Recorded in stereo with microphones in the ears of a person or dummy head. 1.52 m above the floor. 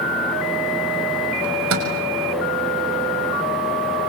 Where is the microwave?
85° right, 6 m.